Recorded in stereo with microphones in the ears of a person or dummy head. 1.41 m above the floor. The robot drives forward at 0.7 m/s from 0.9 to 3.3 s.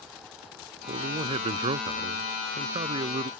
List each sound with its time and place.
0.9 s a man speaking: 30° right (ahead or behind); by 3.3 s 25° right (ahead or behind)